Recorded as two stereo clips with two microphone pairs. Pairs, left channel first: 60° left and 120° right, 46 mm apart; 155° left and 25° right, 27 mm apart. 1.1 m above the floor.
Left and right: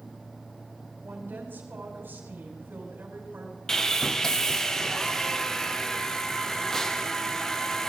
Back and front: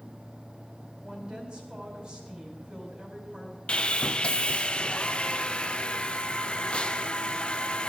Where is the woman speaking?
80° right, 4.5 m.